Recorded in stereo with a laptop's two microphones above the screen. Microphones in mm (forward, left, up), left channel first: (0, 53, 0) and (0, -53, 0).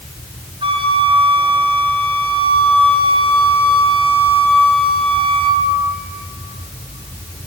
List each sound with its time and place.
0.6 s a flute: 60° right (ahead or behind), 3 m